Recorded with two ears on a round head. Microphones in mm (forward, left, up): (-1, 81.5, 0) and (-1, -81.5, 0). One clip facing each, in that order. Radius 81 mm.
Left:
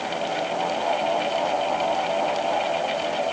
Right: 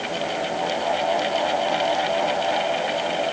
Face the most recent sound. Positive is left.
No sound to turn to.